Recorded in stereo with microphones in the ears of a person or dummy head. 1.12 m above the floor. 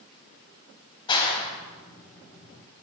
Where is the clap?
25° left (ahead or behind), 5.5 m.